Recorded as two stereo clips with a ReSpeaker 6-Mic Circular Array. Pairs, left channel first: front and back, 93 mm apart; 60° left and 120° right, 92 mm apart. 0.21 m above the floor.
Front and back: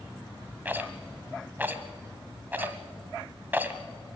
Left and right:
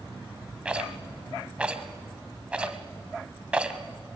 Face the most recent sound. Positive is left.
turn(degrees=-170)